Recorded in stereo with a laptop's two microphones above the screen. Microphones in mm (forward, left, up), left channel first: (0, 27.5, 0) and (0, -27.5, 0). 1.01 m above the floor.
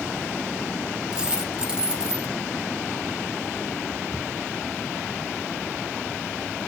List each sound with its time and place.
1.1 s a dropped coin: 20° right (ahead or behind), 0.5 m